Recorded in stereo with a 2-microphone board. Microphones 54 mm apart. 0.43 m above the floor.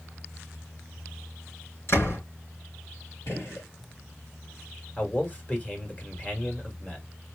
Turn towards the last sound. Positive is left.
turn(degrees=30)  # may be behind; listen again after turning